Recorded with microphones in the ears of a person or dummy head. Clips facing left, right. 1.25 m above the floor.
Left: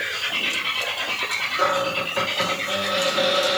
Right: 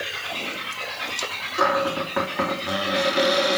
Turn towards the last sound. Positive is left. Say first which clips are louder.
# right 1 dB
turn(degrees=-70)  # may be behind; listen again after turning